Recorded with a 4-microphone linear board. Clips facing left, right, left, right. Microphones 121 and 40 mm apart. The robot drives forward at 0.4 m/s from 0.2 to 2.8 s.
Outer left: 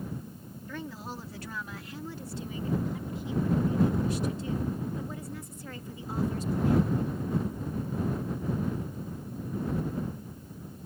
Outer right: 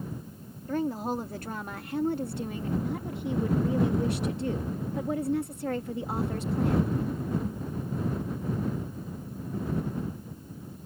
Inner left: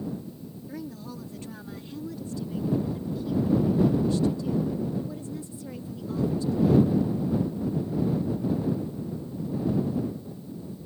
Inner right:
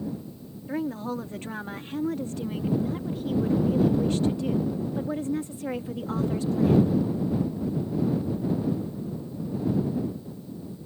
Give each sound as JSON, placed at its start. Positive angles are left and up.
{"t": 0.7, "sound": "a woman speaking", "side_deg": -45}